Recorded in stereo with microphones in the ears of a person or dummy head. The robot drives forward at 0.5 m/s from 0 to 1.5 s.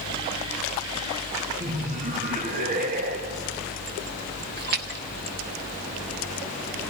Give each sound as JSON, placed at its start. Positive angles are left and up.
{"t": 1.6, "sound": "laughter", "side_deg": -50, "distance_m": 1.6}
{"t": 4.6, "sound": "a splash", "side_deg": -55, "distance_m": 1.3}